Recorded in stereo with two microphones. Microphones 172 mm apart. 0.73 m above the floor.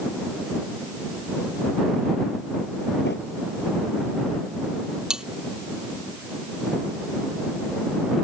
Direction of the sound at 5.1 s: 5° right (ahead or behind).